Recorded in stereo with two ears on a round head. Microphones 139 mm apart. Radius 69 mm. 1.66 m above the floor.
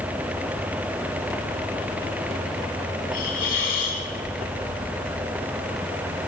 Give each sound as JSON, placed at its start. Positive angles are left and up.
{"t": 3.1, "sound": "a hiss", "side_deg": 55, "distance_m": 4.0}